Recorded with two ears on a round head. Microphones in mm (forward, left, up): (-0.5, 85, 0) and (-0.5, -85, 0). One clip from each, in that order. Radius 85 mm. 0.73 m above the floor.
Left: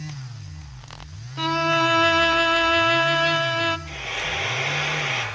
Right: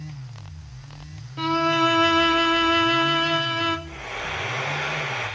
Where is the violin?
15° left (ahead or behind), 1.1 m.